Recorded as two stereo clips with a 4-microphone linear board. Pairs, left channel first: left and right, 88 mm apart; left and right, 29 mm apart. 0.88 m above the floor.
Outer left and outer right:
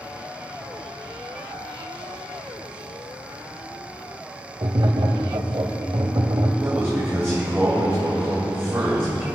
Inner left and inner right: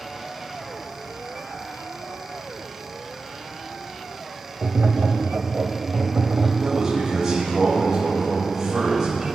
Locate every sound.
4.6 s tapping: 60° right (ahead or behind), 1.0 m
6.6 s a man speaking: 30° right (ahead or behind), 4 m